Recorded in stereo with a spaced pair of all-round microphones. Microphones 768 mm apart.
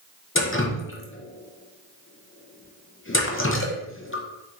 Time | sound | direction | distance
0.3 | dripping | 20° left (ahead or behind) | 0.7 m